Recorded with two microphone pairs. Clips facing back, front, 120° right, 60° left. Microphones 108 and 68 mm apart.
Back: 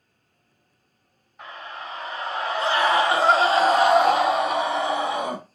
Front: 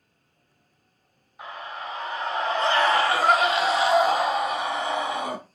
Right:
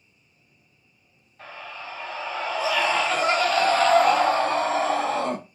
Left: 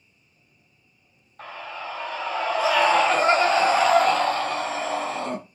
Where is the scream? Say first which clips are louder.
Front 1 dB, left 3 dB; 80° left, 1.7 m; by 5.4 s 150° right, 1.0 m.